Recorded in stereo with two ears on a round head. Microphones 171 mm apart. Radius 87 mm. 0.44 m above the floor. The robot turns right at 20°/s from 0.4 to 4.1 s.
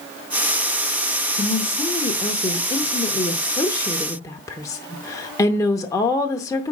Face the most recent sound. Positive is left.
turn(degrees=145)